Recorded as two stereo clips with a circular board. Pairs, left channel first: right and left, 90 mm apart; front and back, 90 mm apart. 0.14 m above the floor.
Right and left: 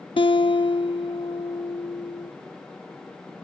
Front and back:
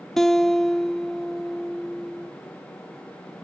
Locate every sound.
0.2 s a guitar: 85° right, 0.5 m